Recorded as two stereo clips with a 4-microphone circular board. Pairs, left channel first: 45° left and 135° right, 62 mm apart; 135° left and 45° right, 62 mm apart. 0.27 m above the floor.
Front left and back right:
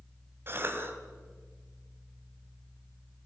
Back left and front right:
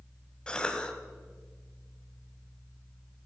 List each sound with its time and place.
0.5 s a cough: 155° right, 1.6 m